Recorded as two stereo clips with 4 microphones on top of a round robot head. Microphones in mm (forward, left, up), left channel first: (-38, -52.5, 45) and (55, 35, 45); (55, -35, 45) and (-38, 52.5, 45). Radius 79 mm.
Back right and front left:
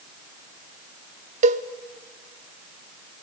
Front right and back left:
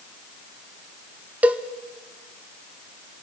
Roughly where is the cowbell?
Ahead left.